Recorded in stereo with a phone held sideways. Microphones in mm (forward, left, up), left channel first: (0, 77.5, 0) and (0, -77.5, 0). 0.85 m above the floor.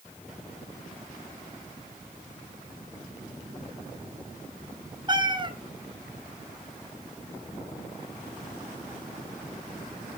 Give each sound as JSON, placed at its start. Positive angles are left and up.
{"t": 5.1, "sound": "a cat meowing", "side_deg": -30, "distance_m": 1.2}